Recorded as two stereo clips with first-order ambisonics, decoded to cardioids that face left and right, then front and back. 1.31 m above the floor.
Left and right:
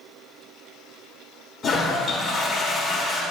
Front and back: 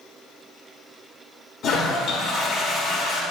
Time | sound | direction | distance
1.6 | a toilet flushing | 20° left | 1.3 m